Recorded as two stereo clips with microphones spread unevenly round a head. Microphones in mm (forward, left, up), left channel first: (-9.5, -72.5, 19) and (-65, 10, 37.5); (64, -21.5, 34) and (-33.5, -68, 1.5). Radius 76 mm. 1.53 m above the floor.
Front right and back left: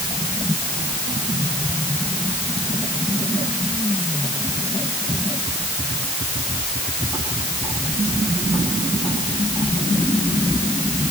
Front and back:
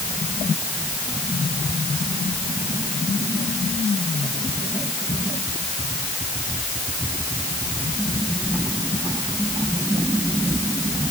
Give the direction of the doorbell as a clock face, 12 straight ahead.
I don't hear a doorbell.